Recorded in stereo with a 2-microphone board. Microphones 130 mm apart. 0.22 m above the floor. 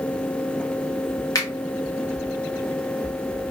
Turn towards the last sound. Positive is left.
turn(degrees=30)  # may be behind; listen again after turning